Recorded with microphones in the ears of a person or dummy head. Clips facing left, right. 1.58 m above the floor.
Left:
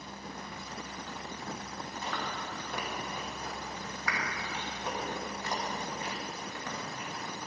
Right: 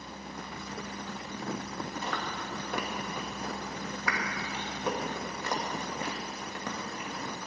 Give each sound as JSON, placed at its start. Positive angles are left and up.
{"t": 2.0, "sound": "chewing", "side_deg": -65, "distance_m": 2.0}